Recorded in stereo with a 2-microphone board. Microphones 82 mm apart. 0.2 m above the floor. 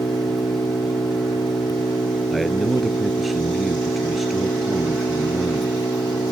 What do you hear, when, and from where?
0.0 s an engine running: 55° left (ahead or behind)
2.3 s a man speaking: centre (ahead or behind)